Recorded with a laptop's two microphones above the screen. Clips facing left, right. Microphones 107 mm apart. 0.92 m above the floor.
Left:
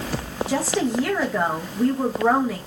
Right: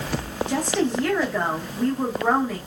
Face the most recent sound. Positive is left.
turn(degrees=5)  # may be behind; listen again after turning